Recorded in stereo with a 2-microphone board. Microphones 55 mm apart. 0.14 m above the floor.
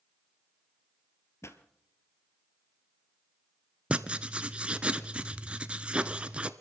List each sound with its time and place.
1.4 s a pop: 60° left (ahead or behind), 1.1 m
3.9 s writing: 20° right (ahead or behind), 0.6 m